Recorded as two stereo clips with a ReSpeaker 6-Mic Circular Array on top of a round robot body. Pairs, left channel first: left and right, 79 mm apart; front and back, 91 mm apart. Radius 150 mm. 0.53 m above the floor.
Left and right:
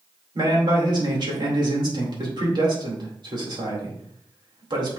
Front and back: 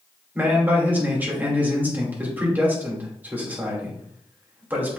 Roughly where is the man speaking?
Right.